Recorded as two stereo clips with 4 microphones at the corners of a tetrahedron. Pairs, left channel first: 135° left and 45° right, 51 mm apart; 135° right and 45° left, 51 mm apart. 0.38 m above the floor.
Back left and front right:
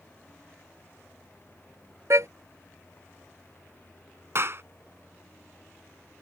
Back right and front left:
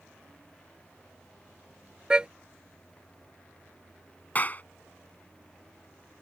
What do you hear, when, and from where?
2.1 s a car horn: 25° right
4.3 s a clap: 80° right